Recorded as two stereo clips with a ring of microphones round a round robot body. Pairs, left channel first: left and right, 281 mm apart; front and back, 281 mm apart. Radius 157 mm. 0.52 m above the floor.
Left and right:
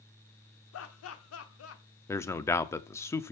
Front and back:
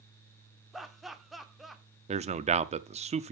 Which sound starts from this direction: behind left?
A man speaking, at 2.1 s.